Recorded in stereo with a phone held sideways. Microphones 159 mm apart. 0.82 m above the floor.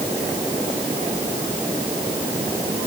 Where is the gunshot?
I don't hear a gunshot.